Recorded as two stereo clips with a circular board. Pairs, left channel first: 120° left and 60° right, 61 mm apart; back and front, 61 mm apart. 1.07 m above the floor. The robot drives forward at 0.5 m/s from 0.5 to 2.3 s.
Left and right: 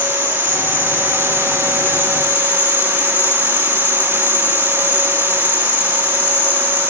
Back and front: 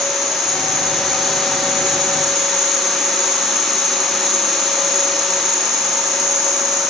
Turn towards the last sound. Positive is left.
turn(degrees=5)